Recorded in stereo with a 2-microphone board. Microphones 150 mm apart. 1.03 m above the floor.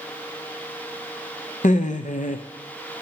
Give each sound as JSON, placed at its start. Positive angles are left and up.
{"t": 1.6, "sound": "laughter", "side_deg": 55, "distance_m": 0.5}